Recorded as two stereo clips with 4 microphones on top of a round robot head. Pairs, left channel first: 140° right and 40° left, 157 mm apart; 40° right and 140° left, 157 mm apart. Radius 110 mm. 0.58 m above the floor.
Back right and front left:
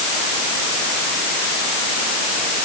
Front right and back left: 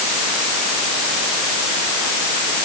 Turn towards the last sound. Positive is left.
No sound to turn to.